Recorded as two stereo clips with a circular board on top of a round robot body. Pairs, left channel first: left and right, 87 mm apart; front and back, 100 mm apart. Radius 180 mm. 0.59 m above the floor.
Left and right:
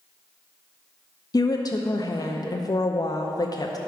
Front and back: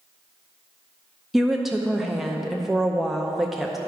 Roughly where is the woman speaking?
Left.